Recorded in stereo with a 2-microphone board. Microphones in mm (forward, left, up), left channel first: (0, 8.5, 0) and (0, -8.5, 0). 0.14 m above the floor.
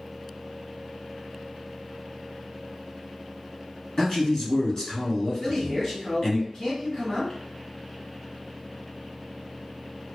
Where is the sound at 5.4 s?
35° left (ahead or behind), 1.8 m.